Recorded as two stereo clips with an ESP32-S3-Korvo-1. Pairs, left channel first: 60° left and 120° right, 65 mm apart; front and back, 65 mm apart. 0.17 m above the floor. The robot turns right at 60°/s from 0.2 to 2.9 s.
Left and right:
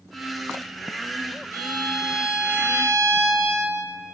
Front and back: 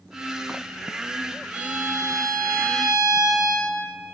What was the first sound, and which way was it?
A violin, 105° left.